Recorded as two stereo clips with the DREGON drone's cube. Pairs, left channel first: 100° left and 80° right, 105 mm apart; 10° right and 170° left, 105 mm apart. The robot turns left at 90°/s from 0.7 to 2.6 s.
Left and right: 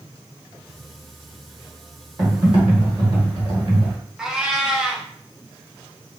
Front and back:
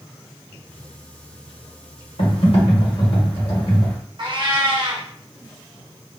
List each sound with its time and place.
2.2 s typing on a keyboard: 15° right, 1.6 m; by 4.0 s 50° right, 1.6 m
4.2 s a cat meowing: 160° right, 0.8 m